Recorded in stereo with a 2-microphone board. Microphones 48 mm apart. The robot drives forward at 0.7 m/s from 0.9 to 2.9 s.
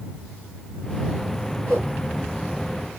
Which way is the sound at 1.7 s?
65° right (ahead or behind).